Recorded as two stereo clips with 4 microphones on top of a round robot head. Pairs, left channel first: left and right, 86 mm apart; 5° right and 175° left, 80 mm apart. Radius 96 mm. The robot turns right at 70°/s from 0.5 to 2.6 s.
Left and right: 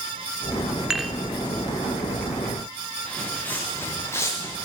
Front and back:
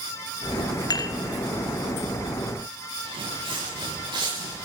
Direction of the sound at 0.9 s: 10° right.